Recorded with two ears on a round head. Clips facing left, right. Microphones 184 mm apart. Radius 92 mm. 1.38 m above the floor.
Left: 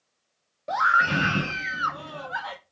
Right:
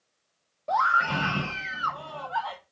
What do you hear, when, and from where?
0.7 s a scream: 25° left (ahead or behind), 0.8 m